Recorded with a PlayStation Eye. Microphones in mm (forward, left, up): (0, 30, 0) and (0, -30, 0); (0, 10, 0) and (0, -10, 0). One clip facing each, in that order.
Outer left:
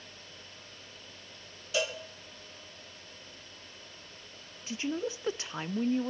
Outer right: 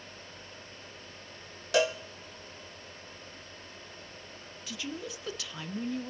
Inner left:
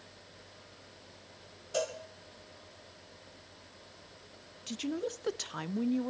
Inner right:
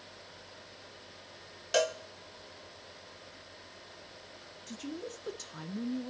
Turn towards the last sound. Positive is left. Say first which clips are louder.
# outer left 6 dB, inner left 6 dB
turn(degrees=30)  # may be behind; listen again after turning